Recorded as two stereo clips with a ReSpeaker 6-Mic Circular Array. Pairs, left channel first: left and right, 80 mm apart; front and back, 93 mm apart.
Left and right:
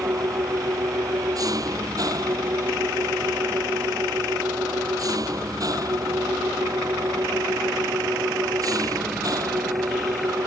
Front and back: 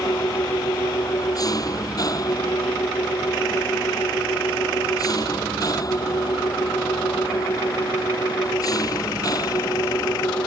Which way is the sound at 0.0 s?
50° right.